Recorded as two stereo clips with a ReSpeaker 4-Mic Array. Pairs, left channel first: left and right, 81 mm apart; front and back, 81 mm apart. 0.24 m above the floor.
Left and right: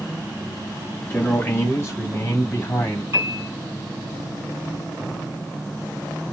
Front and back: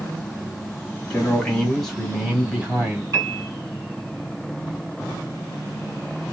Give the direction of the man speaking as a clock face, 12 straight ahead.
10 o'clock.